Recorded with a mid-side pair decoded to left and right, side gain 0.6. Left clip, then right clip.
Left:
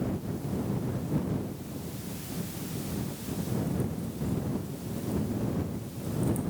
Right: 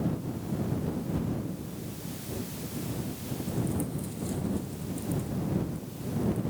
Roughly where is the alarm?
No alarm in this recording.